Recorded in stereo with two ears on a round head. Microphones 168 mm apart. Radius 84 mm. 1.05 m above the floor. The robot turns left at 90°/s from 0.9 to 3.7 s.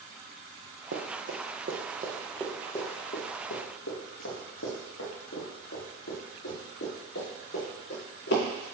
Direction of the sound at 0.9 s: 60° right (ahead or behind).